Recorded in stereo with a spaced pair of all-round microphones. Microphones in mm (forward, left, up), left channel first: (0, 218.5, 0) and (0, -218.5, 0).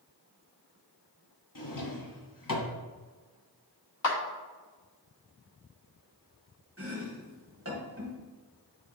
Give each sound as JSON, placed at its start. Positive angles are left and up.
{"t": 1.6, "sound": "a drawer", "side_deg": 45, "distance_m": 1.0}
{"t": 4.0, "sound": "a clap", "side_deg": 85, "distance_m": 1.4}
{"t": 6.8, "sound": "chopping", "side_deg": -30, "distance_m": 1.6}